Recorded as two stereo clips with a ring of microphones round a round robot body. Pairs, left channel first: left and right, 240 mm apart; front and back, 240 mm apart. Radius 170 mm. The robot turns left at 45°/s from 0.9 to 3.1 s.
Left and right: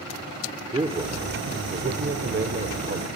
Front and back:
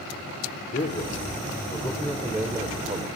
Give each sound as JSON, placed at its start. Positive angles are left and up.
{"t": 0.7, "sound": "a man speaking", "azimuth_deg": -35, "distance_m": 1.1}